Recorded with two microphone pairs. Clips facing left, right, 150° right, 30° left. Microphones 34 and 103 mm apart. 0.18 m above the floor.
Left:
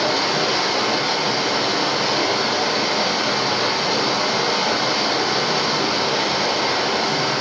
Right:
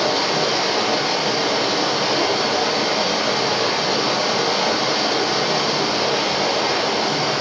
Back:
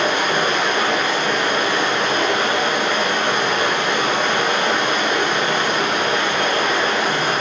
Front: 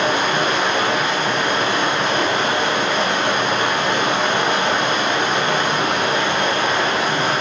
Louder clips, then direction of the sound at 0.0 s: Even, even; 5° right.